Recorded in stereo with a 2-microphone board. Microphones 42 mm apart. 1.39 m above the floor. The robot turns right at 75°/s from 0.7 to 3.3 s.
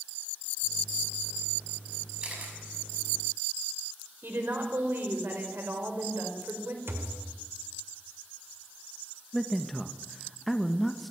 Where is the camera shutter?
20° right (ahead or behind), 6 m; by 2.5 s 45° right (ahead or behind), 6 m.